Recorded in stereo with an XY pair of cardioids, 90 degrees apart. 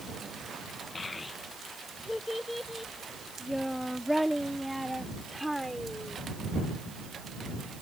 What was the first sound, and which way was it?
A child speaking, 40° left.